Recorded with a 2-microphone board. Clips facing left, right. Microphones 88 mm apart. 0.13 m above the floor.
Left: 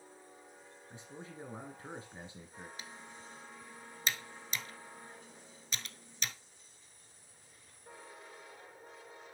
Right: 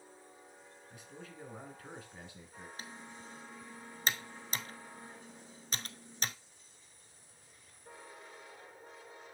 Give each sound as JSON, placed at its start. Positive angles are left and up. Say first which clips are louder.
{"t": 0.9, "sound": "a man speaking", "louder": "left 2 dB", "side_deg": 25, "distance_m": 1.4}
{"t": 2.8, "sound": "typing on a keyboard", "louder": "right 1 dB", "side_deg": -40, "distance_m": 0.8}